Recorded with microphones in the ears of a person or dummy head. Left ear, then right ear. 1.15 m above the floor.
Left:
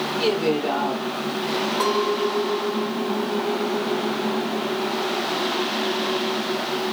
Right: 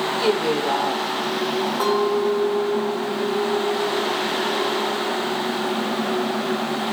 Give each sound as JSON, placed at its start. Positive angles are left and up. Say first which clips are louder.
{"t": 0.2, "sound": "a woman speaking", "louder": "even", "side_deg": -5, "distance_m": 2.5}
{"t": 1.8, "sound": "a clink", "louder": "right 2 dB", "side_deg": -10, "distance_m": 2.5}